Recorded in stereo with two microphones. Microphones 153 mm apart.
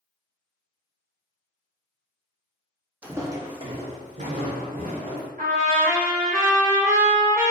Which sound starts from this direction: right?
A trumpet, at 5.4 s.